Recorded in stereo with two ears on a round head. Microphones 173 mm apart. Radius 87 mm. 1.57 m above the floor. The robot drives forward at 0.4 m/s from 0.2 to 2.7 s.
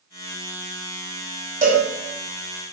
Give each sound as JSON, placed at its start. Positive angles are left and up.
{"t": 1.6, "sound": "a cowbell", "side_deg": -15, "distance_m": 1.4}